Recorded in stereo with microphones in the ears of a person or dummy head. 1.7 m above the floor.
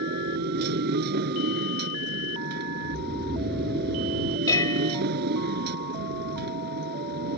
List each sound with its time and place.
0.0 s a motorcycle: 60° right (ahead or behind)
2.9 s snoring: centre (ahead or behind)
4.5 s dishes clattering: 20° left (ahead or behind)